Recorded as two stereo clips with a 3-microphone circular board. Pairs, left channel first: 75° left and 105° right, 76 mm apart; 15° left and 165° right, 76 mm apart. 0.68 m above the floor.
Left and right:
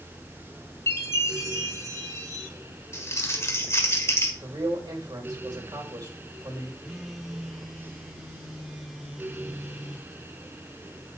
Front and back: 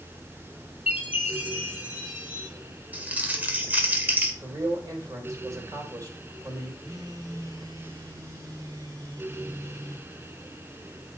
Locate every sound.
0.9 s a chime: 125° left, 3.5 m
2.9 s crumpling: 125° left, 1.8 m
4.4 s a man speaking: 125° right, 3.5 m
6.8 s a phone buzzing: 170° left, 1.8 m